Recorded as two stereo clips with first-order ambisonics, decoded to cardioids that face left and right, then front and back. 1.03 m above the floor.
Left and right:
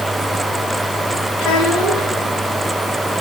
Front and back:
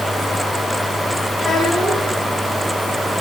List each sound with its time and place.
1.4 s a child speaking: 75° left, 3.5 m